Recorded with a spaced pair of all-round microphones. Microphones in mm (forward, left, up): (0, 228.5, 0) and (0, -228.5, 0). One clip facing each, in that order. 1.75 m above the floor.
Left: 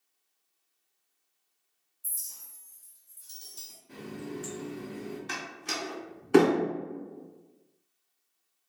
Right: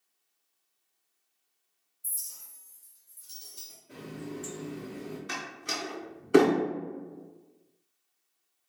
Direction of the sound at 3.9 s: 15° left (ahead or behind).